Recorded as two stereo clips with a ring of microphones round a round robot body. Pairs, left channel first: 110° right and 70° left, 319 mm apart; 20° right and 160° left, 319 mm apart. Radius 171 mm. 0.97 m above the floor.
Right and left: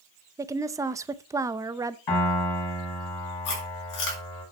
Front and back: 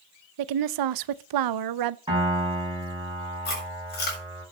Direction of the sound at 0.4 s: 150° left.